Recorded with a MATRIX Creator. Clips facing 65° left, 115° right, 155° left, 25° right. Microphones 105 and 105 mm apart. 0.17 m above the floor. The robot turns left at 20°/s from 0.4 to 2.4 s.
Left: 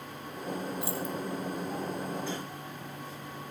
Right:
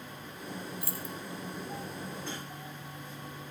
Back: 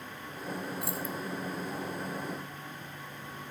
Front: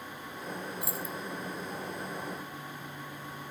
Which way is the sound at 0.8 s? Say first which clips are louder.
Left 7 dB, back 2 dB; 65° left.